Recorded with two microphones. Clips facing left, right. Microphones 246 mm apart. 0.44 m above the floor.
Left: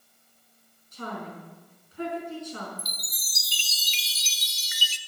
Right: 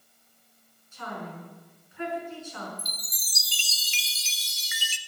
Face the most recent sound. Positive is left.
turn(degrees=-50)  # may be behind; listen again after turning